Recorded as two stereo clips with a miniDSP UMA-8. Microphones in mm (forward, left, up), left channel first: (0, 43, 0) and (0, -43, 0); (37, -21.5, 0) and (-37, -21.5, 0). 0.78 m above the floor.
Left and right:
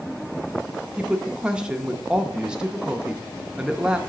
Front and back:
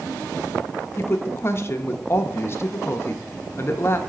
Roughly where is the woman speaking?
Ahead.